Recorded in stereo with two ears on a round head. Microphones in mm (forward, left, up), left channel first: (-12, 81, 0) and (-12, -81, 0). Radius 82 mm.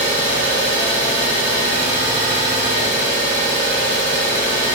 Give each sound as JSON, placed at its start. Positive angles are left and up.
{"t": 0.0, "sound": "an engine running", "side_deg": 15, "distance_m": 1.5}